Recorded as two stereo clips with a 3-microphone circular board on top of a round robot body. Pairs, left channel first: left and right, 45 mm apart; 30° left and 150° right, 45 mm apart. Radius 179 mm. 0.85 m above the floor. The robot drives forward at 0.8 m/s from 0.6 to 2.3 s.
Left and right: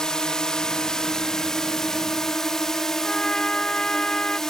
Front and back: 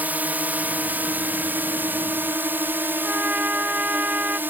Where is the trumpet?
160° left.